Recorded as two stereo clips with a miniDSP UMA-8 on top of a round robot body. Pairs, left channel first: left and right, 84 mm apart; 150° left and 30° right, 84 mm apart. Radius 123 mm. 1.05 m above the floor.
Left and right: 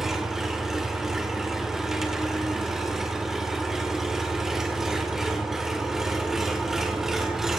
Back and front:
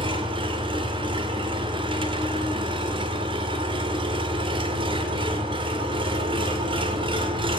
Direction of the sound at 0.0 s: 5° right.